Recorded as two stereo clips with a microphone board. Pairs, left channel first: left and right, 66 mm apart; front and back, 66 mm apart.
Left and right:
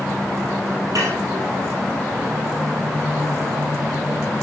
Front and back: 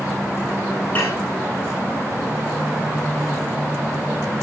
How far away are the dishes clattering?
About 8.5 m.